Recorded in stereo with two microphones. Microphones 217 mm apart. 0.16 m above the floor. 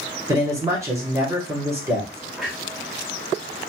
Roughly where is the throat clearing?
No throat clearing in this recording.